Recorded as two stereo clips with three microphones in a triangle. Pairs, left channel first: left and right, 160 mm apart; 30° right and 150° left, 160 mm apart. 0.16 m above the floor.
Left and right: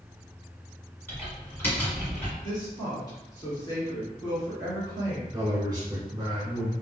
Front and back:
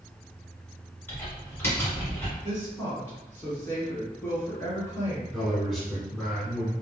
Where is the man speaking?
115° right, 1.3 m.